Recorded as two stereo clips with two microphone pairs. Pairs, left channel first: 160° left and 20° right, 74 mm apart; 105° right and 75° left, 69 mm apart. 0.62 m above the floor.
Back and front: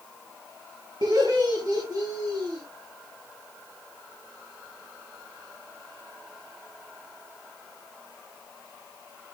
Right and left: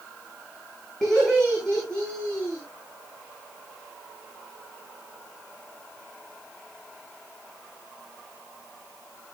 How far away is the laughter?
About 6.5 m.